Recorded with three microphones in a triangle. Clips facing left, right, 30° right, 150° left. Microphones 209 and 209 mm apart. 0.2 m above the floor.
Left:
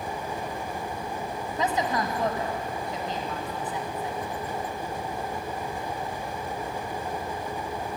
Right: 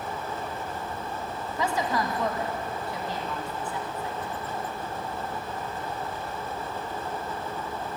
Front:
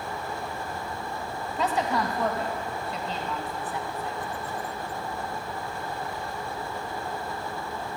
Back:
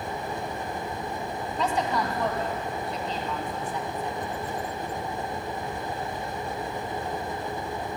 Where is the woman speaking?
55° left, 1.6 m.